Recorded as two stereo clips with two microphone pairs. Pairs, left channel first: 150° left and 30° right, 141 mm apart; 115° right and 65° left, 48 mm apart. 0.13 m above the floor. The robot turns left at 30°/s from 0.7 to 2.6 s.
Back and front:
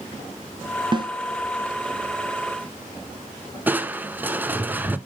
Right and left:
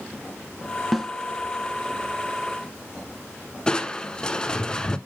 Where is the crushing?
85° right, 0.7 m.